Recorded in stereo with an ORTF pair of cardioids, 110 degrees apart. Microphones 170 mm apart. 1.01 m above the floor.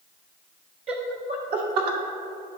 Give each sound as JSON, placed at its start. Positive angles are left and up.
{"t": 0.9, "sound": "laughter", "azimuth_deg": -30, "distance_m": 0.8}